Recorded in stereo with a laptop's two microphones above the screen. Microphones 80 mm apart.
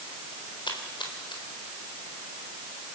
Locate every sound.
0.7 s a splash: 80° left, 4 m